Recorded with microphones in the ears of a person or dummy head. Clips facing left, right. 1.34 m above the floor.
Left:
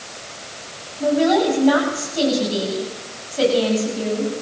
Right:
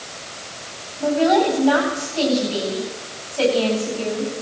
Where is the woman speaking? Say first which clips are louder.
Even; 25° left (ahead or behind), 9.5 m.